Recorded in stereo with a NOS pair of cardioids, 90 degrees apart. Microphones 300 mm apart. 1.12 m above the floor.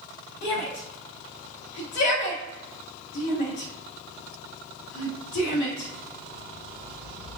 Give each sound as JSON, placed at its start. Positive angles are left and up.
{"t": 0.4, "sound": "a shout", "azimuth_deg": 65, "distance_m": 1.2}